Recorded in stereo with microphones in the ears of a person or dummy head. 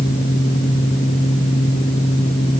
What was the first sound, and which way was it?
Only background noise.